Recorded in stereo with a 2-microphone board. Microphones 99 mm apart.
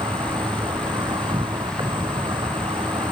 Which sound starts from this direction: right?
An insect, at 0.0 s.